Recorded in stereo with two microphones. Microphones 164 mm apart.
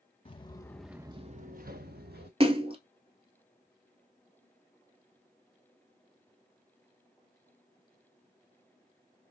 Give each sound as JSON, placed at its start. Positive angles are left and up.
{"t": 0.2, "sound": "footsteps", "side_deg": 35, "distance_m": 0.9}
{"t": 2.4, "sound": "a splash", "side_deg": -35, "distance_m": 0.6}